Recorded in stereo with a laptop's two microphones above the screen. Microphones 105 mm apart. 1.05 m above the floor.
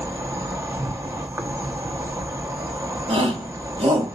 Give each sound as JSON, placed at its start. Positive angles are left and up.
{"t": 0.0, "sound": "an insect", "side_deg": -30, "distance_m": 0.8}
{"t": 3.1, "sound": "a shout", "side_deg": -75, "distance_m": 3.0}